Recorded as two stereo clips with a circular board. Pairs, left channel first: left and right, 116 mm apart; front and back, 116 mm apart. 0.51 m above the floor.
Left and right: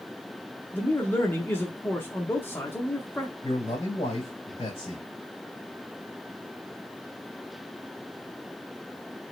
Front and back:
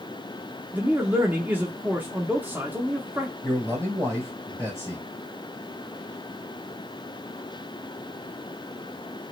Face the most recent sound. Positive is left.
turn(degrees=120)